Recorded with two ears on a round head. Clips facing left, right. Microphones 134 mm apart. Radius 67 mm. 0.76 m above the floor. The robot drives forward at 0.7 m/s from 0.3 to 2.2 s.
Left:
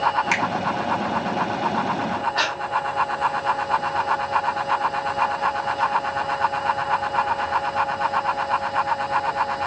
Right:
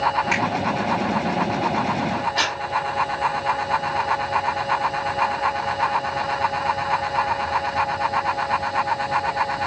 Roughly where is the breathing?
Right.